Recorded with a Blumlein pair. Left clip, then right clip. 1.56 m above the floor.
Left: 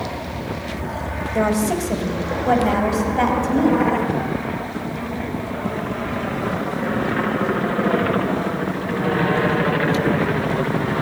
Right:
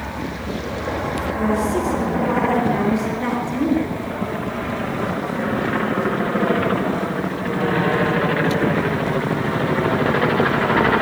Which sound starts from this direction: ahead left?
A woman speaking, at 1.4 s.